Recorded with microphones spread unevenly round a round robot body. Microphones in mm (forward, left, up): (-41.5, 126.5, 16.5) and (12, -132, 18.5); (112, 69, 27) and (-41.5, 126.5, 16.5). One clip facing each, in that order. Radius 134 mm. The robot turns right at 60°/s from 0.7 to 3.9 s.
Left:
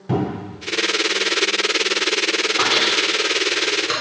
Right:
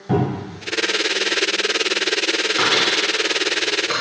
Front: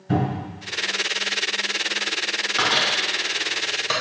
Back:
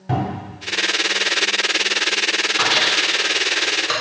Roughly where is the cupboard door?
Behind.